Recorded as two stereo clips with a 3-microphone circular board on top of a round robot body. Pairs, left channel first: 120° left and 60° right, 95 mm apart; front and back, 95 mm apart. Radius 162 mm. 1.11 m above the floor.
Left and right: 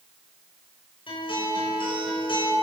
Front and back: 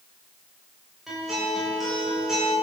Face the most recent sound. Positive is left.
turn(degrees=95)